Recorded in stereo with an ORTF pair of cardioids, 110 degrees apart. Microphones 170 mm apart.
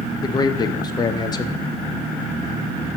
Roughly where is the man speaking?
Ahead left.